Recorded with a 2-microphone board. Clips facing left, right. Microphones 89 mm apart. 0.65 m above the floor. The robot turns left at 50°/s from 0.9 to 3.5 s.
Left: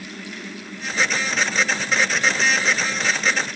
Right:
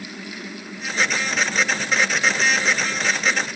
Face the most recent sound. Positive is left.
No sound to turn to.